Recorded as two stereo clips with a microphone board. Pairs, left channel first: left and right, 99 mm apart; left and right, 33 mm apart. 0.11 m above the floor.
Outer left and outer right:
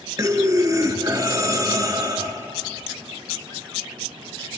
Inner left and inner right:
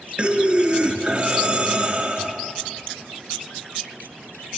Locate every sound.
0.2 s breathing: 35° right (ahead or behind), 0.7 m